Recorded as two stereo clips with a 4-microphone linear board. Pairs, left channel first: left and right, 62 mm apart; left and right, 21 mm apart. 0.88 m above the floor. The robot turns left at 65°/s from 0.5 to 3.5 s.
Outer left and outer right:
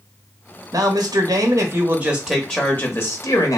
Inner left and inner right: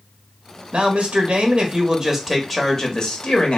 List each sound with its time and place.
0.7 s a man speaking: 75° right, 1.0 m; by 3.6 s 105° left, 1.0 m